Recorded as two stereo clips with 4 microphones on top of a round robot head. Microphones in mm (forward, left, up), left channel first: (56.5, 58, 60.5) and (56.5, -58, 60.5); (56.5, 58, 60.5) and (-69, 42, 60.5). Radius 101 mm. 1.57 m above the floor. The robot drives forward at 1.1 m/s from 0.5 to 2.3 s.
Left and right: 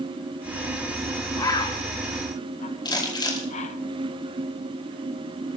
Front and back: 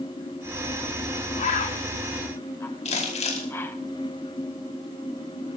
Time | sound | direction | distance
1.4 | a bird | 30° left | 1.5 m
2.9 | crumpling | 40° left | 5 m